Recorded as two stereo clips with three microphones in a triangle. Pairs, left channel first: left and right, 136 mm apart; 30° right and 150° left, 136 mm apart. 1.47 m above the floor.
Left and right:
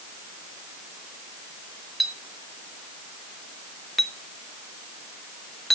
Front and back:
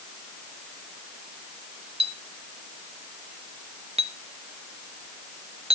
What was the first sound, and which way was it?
A clink, straight behind.